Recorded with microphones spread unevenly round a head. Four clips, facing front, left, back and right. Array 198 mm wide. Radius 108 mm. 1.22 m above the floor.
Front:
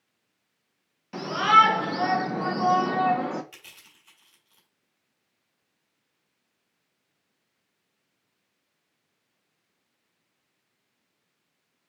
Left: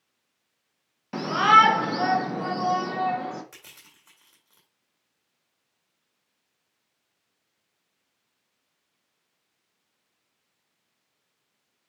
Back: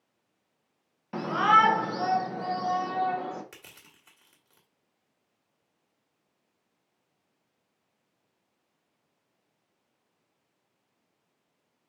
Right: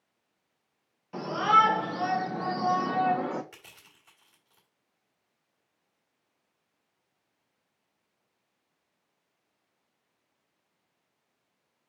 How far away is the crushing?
About 2 m.